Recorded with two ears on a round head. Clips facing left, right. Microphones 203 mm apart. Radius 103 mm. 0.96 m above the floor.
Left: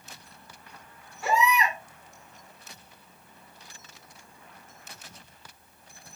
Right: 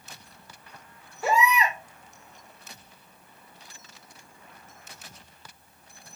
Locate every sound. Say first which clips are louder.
1.2 s a baby crying: right 1 dB; 80° right, 2.0 m